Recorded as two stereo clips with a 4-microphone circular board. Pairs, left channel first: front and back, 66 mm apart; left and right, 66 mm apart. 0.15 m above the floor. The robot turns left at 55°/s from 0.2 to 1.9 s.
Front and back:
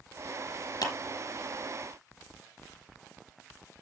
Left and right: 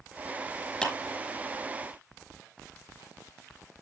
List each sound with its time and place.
0.8 s a clap: 10° left, 5 m; by 0.9 s 5° left, 5 m